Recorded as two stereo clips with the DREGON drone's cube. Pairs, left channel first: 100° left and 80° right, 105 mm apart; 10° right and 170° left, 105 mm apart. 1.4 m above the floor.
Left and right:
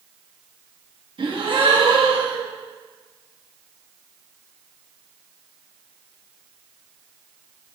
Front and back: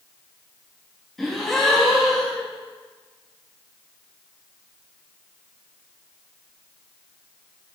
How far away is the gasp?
About 1.2 m.